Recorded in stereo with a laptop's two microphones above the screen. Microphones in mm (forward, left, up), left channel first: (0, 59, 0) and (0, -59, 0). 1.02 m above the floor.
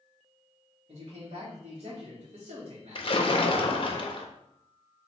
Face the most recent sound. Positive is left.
turn(degrees=50)  # may be behind; listen again after turning